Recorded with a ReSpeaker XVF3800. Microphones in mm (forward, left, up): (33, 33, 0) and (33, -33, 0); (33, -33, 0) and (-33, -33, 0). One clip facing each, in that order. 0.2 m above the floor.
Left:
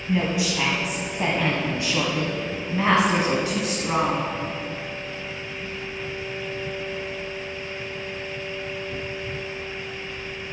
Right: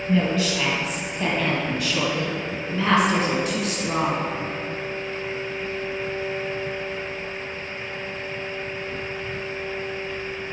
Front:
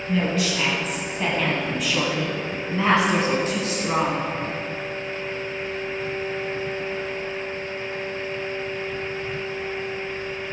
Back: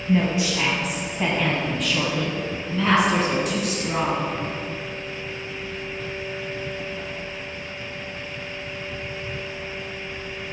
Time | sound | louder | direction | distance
0.1 | a woman speaking | right 2 dB, back 2 dB | 150° left | 1.7 m